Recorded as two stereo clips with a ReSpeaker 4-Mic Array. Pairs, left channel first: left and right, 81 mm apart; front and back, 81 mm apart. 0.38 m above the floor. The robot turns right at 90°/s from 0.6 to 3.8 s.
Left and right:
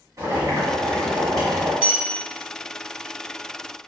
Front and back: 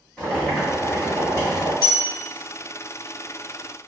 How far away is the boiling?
About 1.7 m.